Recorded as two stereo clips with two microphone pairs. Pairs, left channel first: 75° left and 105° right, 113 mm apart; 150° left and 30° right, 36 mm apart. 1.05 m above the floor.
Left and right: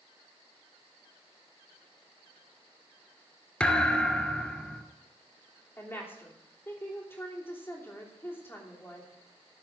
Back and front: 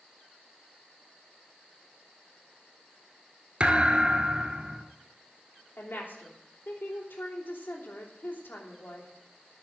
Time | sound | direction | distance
3.6 | a thud | straight ahead | 1.2 m
5.8 | a woman speaking | 145° left | 3 m